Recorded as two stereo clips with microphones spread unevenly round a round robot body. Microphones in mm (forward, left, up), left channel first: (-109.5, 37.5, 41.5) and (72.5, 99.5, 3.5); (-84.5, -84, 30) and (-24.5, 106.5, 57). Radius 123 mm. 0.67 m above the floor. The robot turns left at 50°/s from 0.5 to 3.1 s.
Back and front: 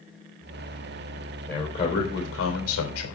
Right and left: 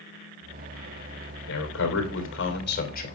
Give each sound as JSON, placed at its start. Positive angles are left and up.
{"t": 1.5, "sound": "a man speaking", "azimuth_deg": -75, "distance_m": 3.5}